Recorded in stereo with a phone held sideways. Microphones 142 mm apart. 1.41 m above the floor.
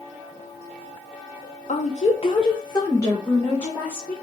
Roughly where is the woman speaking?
Left.